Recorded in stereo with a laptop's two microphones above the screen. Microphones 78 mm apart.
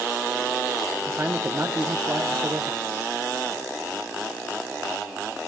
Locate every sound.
1.1 s a man speaking: 30° right (ahead or behind), 0.8 m